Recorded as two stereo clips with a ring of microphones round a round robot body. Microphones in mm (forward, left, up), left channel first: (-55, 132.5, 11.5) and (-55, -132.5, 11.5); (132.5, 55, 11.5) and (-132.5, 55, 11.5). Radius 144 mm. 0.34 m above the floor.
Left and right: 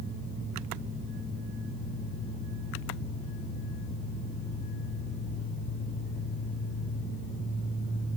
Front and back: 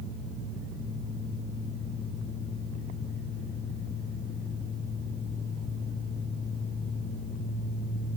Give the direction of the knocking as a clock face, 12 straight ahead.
I don't hear knocking.